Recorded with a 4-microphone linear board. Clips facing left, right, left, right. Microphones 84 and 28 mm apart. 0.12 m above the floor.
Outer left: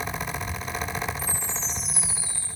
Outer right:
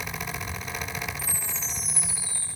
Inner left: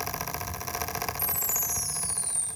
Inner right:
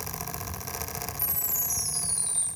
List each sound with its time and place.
1.2 s a chime: 45° right (ahead or behind), 7.5 m